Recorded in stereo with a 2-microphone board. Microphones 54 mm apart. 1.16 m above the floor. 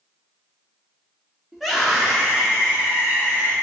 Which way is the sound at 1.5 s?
Centre (ahead or behind).